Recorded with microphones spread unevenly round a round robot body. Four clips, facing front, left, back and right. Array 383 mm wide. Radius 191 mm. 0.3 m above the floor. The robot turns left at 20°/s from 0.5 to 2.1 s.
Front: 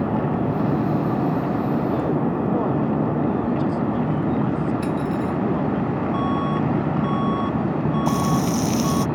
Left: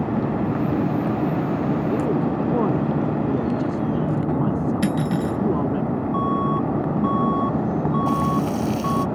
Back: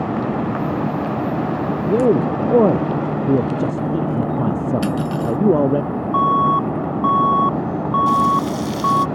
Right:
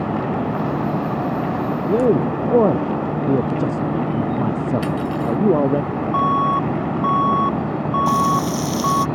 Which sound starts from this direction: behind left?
Cutlery clinking, at 4.8 s.